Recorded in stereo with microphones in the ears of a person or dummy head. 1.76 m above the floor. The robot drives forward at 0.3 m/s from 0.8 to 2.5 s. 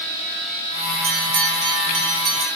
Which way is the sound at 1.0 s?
35° right (ahead or behind).